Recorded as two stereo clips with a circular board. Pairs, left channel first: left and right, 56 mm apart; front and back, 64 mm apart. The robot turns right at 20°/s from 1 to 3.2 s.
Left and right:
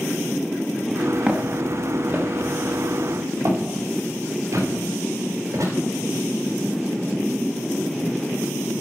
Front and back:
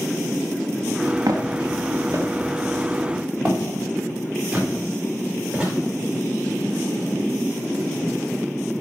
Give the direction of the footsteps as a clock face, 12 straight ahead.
5 o'clock.